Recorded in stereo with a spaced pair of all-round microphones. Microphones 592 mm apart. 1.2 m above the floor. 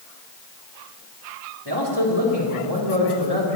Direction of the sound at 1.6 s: 40° right (ahead or behind).